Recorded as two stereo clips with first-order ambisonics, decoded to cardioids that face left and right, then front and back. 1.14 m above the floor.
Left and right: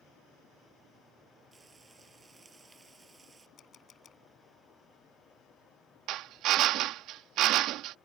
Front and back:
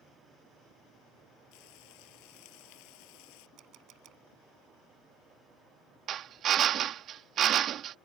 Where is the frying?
15° right.